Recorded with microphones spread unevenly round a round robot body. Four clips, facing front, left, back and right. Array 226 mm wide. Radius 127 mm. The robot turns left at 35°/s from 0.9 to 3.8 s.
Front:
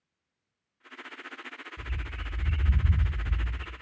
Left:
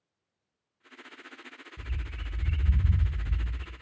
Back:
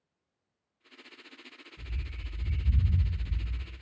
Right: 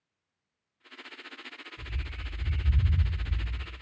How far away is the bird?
About 1.2 m.